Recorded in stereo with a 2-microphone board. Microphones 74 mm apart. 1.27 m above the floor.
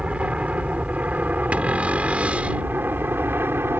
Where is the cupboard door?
20° right (ahead or behind).